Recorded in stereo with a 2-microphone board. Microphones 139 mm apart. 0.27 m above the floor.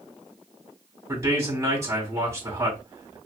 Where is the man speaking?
20° right (ahead or behind), 2.5 m.